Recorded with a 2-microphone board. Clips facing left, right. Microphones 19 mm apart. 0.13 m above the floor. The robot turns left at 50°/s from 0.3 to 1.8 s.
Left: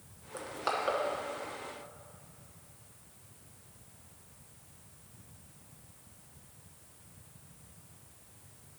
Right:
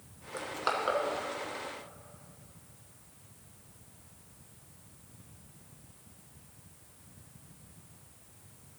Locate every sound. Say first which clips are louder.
0.3 s crushing: right 2 dB; 20° right (ahead or behind), 0.9 m; by 1.0 s 10° right (ahead or behind), 0.9 m